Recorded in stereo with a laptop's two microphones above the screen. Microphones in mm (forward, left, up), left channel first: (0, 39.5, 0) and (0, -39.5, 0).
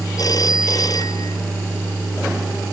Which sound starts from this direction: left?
A phone ringing, at 0.2 s.